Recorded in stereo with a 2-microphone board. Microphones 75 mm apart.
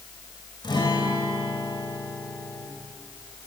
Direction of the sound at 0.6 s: 85° left.